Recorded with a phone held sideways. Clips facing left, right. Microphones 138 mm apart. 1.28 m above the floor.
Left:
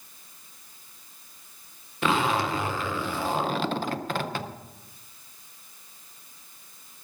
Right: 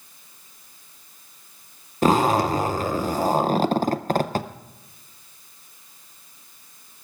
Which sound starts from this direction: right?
A zipper, at 2.0 s.